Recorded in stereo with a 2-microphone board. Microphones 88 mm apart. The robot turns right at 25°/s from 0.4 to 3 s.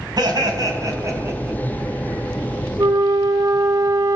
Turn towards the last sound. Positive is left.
turn(degrees=-45)  # may be behind; listen again after turning